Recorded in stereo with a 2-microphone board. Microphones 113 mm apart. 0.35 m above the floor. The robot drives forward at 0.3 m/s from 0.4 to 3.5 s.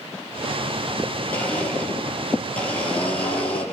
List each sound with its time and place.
1.3 s a blender: 10° left (ahead or behind), 5.5 m